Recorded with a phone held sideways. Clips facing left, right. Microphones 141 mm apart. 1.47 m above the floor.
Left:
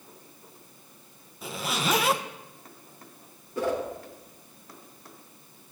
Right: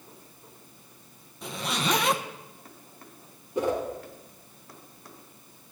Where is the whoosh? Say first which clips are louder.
Right 1 dB; 20° right (ahead or behind), 3.5 m.